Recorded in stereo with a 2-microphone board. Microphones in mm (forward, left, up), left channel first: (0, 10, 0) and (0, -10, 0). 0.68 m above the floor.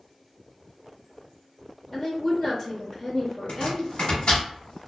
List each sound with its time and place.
1.9 s a woman speaking: 40° left (ahead or behind), 0.8 m
3.5 s chopping: 75° left (ahead or behind), 1.3 m